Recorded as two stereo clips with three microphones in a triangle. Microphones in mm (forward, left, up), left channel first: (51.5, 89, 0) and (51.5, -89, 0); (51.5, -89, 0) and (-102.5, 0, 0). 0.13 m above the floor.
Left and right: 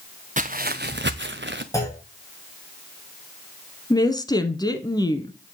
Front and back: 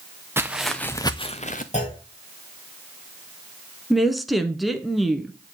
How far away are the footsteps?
About 1.0 m.